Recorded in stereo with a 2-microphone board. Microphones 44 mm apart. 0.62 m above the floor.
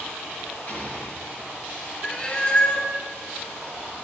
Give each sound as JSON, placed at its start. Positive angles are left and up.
{"t": 0.7, "sound": "an explosion", "side_deg": 40, "distance_m": 4.0}
{"t": 2.0, "sound": "a cat meowing", "side_deg": 25, "distance_m": 1.1}